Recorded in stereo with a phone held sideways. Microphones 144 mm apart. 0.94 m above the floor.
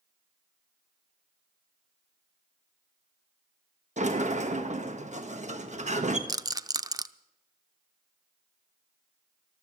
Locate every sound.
4.0 s a sliding door: 50° right (ahead or behind), 1.3 m
6.3 s a rattle: 25° right (ahead or behind), 0.5 m